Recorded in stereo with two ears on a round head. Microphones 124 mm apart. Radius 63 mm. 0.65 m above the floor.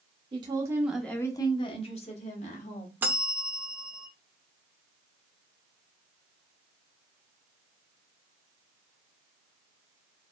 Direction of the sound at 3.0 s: 15° right (ahead or behind).